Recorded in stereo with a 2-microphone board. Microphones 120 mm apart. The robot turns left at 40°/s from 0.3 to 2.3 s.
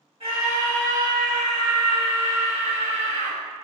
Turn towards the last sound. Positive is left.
turn(degrees=-130)